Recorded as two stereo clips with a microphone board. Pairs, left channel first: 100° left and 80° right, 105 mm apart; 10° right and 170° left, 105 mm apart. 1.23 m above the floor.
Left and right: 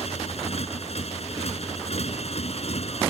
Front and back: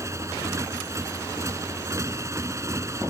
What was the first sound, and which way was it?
A motorcycle, 110° left.